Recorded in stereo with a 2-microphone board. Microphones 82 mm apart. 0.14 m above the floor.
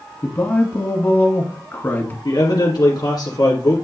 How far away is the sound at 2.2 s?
About 2.5 m.